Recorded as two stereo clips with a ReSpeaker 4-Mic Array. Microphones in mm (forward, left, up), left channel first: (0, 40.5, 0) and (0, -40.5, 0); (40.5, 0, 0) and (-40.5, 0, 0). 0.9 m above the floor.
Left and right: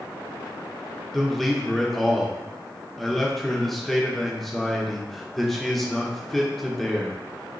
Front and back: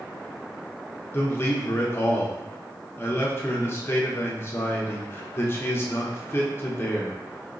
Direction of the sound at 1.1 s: 5° left.